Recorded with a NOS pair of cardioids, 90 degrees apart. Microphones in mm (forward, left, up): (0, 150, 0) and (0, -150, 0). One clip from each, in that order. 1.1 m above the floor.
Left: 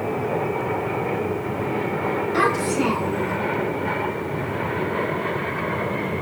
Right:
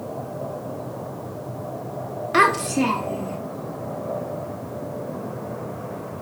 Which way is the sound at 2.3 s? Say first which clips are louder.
Right 5 dB; 65° right.